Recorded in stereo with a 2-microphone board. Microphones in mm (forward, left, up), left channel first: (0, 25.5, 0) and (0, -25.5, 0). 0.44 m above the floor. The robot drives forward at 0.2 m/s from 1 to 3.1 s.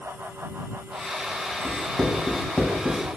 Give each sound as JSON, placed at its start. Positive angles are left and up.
{"t": 1.6, "sound": "writing", "side_deg": 5, "distance_m": 0.9}